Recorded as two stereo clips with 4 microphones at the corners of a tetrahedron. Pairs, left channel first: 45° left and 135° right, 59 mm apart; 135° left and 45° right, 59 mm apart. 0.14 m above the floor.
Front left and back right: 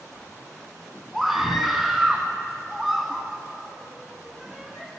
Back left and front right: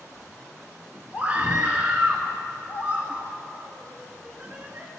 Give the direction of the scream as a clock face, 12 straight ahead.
2 o'clock.